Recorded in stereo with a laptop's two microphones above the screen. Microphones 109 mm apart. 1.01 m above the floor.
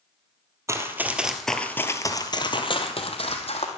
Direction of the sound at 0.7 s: 25° right (ahead or behind).